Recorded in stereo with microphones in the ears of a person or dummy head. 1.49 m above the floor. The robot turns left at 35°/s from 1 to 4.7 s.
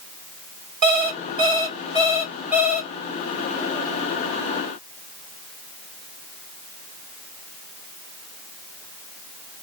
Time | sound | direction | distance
0.8 | an alarm clock | 115° right | 1.0 m